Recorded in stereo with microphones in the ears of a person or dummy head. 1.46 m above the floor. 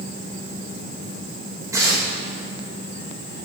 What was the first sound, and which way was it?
Tearing paper, 25° right (ahead or behind).